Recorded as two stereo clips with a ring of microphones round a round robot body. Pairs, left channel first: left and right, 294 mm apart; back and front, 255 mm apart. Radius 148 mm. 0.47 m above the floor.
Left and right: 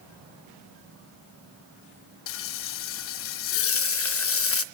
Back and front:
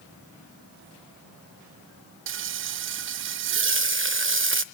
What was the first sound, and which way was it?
Frying, 45° left.